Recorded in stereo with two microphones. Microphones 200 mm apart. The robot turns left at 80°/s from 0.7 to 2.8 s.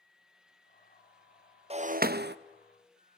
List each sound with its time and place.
1.7 s breaking glass: 35° right, 0.5 m; by 2.4 s 90° right, 0.5 m